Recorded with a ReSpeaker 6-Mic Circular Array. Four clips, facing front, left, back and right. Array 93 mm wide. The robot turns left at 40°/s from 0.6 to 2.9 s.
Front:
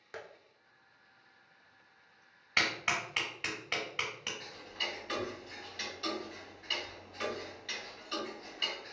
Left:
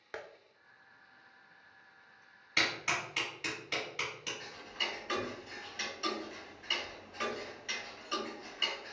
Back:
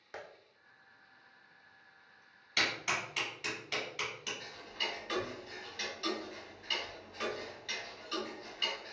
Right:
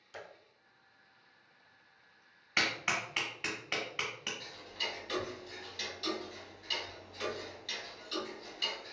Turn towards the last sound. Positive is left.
turn(degrees=85)